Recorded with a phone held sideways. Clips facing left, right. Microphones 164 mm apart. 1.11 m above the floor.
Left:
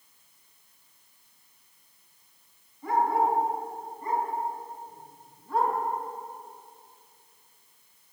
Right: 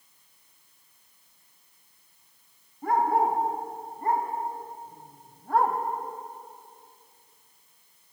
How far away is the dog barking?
About 5 m.